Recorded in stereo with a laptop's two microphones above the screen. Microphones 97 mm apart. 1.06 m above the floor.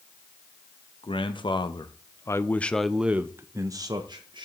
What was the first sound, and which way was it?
A man speaking, 65° left (ahead or behind).